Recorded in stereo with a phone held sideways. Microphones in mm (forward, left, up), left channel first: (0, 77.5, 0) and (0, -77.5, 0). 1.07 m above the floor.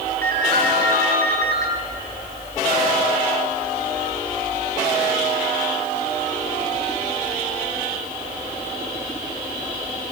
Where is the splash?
No splash in this recording.